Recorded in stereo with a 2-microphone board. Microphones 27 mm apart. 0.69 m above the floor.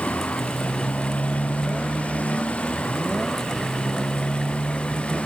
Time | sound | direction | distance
0.0 | a motorcycle | 60° left (ahead or behind) | ?